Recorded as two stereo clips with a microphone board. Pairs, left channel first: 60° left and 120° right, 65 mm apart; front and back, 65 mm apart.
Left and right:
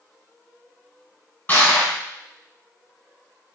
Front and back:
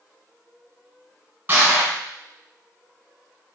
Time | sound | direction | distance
1.5 | crushing | 125° left | 1.8 m